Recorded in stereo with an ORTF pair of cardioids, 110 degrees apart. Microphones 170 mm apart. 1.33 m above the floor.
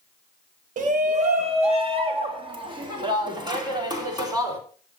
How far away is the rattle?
I don't hear a rattle.